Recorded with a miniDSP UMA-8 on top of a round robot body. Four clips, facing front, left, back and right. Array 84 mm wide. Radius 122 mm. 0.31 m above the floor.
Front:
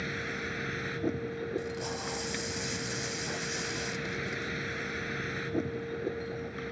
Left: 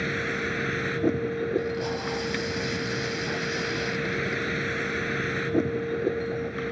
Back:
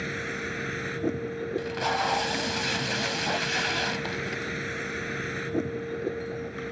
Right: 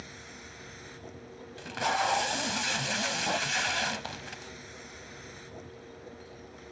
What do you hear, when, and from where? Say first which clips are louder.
0.0 s a vehicle: left 19 dB, back 3 dB; 100° left
1.6 s tape being pulled: left 1 dB, back 9 dB; 140° right